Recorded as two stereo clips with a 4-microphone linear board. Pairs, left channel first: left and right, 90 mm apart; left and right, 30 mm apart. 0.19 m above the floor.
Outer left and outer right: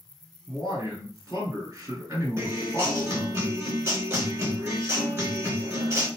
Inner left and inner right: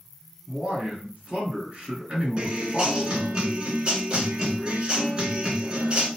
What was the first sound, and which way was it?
A man speaking, 45° right (ahead or behind).